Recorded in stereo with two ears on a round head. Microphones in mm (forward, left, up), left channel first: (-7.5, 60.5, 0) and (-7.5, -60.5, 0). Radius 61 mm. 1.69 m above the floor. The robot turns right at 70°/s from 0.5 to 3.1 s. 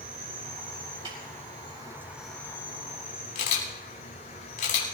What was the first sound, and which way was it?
An insect, 125° right.